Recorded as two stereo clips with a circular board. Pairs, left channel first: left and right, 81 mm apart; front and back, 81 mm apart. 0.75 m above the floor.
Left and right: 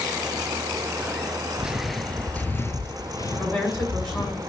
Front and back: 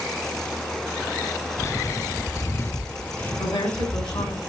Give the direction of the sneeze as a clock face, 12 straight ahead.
No sneeze in this recording.